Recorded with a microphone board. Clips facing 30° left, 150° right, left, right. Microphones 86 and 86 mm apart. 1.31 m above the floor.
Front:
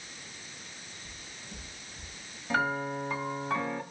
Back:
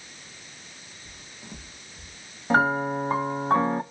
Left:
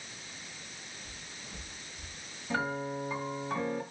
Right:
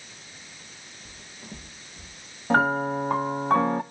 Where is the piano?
105° right, 1.1 m.